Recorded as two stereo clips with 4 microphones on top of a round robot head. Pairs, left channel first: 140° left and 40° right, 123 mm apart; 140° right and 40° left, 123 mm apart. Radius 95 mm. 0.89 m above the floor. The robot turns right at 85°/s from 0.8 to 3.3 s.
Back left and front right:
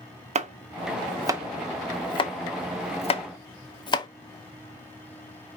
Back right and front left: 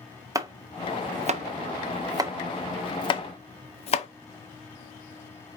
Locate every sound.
0.3 s chopping: 20° right, 0.8 m; by 4.1 s 170° right, 0.8 m